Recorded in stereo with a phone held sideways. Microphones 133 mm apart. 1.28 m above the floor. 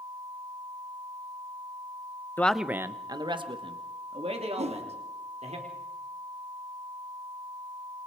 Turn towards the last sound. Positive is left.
turn(degrees=-50)  # may be behind; listen again after turning